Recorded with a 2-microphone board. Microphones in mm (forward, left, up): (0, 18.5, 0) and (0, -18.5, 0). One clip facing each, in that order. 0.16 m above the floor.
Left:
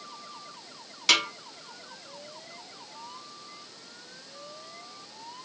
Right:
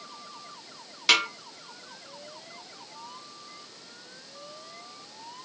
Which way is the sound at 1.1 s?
10° right (ahead or behind).